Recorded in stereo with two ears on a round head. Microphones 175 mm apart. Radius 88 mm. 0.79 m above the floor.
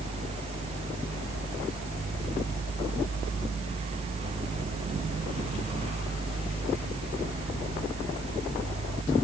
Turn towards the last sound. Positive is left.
No sound to turn to.